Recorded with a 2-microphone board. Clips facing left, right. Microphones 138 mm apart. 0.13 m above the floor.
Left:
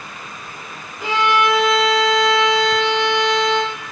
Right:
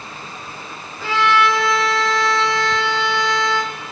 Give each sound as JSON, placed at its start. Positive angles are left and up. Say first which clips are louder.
{"t": 1.0, "sound": "a violin", "louder": "even", "side_deg": 20, "distance_m": 3.0}